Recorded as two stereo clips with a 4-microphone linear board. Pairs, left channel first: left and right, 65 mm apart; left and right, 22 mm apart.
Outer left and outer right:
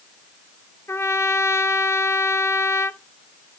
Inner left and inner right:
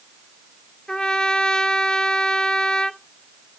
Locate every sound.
0.9 s a trumpet: 45° left (ahead or behind), 0.6 m